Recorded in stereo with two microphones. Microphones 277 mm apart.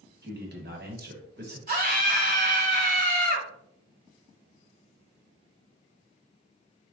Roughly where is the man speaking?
Right.